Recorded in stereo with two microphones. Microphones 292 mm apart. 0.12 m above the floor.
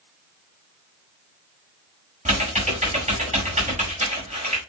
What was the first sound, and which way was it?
Typing on a keyboard, 25° right (ahead or behind).